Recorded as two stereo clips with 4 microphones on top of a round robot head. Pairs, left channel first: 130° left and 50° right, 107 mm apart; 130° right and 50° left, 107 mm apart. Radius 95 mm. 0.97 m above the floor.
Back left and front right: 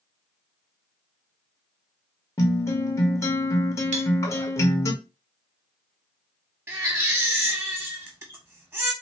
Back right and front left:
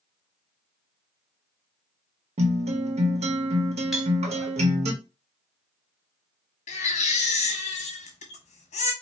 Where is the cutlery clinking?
35° right, 1.1 m.